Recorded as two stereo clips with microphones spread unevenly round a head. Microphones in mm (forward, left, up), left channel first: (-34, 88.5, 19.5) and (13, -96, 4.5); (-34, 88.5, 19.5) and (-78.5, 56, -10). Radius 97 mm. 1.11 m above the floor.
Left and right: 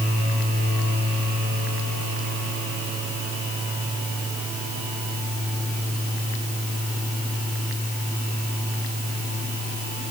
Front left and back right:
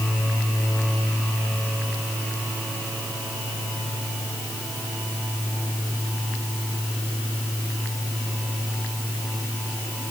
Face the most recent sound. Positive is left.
No sound to turn to.